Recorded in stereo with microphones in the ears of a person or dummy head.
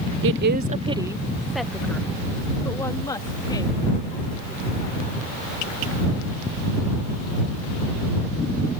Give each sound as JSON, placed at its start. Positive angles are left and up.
{"t": 0.2, "sound": "a woman speaking", "side_deg": -65}